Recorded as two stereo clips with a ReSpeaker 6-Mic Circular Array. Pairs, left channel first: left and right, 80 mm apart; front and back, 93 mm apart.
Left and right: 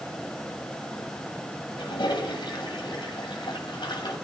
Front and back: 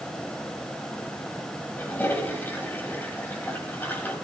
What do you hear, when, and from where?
1.8 s a toilet flushing: 70° left, 3 m